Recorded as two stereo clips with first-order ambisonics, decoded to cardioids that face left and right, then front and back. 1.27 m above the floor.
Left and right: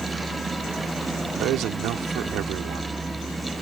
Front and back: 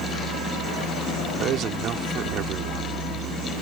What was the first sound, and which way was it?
A vehicle, 170° right.